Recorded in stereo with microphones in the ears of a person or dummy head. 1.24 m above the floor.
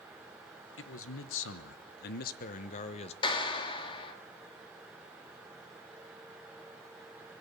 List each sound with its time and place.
0.8 s a man speaking: 65° left (ahead or behind), 1.4 m; by 3.1 s 40° left (ahead or behind), 1.4 m
3.2 s a clap: 30° left (ahead or behind), 2.5 m